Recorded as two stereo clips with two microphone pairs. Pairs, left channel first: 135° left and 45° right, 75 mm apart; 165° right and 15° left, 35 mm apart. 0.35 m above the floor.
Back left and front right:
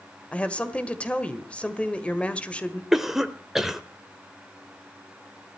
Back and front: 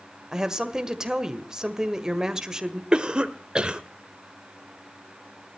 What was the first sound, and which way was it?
A woman speaking, 75° left.